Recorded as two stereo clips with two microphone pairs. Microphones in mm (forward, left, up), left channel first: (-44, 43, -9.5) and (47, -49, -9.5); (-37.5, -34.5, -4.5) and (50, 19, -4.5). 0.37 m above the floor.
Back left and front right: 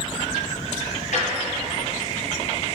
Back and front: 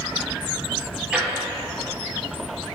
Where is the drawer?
115° left, 3.5 m.